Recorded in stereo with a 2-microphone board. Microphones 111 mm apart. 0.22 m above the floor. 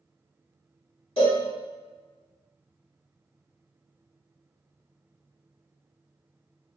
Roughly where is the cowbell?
Left.